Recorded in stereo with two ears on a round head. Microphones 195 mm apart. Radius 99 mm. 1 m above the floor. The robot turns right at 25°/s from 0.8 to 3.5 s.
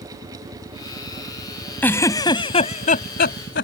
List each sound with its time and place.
1.8 s a giggle: 10° left (ahead or behind); by 3.6 s 50° left (ahead or behind)